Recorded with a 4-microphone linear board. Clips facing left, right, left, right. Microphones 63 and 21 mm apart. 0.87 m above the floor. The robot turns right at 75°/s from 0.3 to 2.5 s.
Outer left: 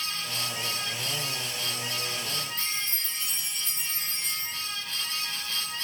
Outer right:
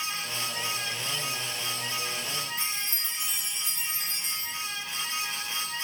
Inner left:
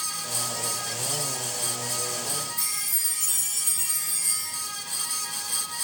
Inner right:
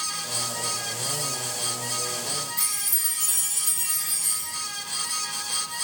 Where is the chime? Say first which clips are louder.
Even, inner right 1 dB; 65° right (ahead or behind), 1.4 m.